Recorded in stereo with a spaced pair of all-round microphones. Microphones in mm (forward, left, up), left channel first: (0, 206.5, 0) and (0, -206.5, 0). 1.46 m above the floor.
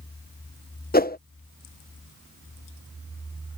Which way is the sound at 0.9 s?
25° left (ahead or behind).